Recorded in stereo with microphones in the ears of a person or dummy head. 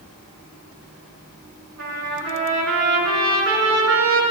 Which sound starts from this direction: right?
A trumpet, at 1.8 s.